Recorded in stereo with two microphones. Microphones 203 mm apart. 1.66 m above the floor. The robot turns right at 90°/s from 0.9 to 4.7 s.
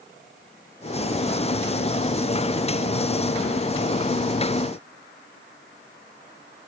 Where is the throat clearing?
No throat clearing in this recording.